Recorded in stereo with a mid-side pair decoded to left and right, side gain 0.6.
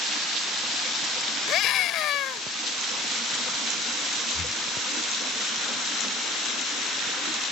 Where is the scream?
60° left.